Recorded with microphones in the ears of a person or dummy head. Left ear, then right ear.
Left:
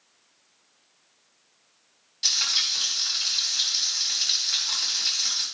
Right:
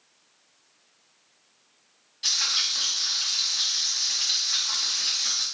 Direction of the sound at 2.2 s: 20° left (ahead or behind).